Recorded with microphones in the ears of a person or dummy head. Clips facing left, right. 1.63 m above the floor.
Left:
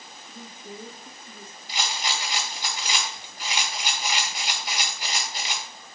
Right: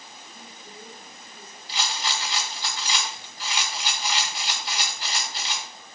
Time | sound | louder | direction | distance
0.3 | a woman speaking | left 8 dB | 60° left (ahead or behind) | 1.0 m
1.7 | a rattle | even | 10° left (ahead or behind) | 1.8 m